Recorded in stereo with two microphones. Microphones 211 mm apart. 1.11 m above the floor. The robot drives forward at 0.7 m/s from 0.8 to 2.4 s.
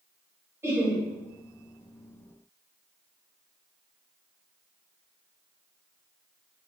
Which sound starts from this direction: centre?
Laughter, at 0.6 s.